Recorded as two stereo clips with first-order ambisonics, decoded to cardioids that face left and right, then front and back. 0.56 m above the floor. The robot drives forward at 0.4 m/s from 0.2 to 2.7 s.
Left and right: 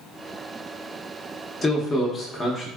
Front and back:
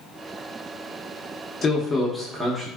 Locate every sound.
1.6 s a man speaking: 35° left, 0.6 m; by 2.7 s 135° left, 0.6 m